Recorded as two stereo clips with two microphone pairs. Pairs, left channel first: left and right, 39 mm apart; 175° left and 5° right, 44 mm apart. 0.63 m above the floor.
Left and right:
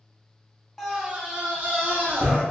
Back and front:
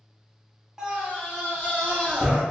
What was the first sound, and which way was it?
A scream, 35° left.